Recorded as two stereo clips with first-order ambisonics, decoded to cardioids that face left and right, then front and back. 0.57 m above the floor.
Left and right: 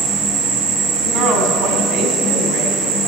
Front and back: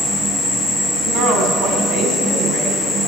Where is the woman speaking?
135° right, 4 m.